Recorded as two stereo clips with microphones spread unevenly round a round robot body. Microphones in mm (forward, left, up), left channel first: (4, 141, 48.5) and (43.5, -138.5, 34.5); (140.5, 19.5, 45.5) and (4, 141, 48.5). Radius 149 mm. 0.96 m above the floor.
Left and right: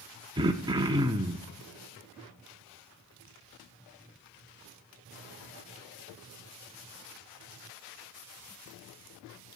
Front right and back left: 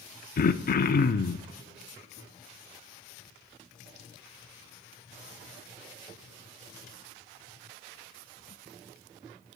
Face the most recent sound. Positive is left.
turn(degrees=-5)